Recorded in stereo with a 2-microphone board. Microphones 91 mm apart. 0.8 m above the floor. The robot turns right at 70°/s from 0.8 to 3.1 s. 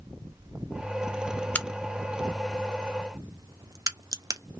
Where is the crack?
15° left (ahead or behind), 0.5 m; by 4.4 s 40° right (ahead or behind), 0.5 m.